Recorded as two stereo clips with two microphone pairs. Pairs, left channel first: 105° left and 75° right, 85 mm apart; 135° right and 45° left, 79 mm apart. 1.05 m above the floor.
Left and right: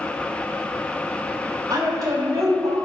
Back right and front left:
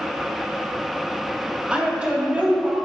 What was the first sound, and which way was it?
A woman speaking, 30° right.